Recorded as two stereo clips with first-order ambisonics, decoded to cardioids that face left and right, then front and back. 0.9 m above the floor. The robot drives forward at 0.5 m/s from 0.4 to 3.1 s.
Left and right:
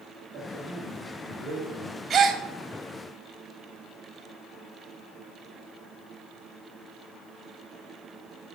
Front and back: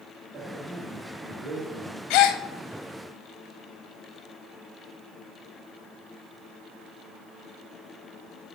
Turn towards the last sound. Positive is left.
turn(degrees=-70)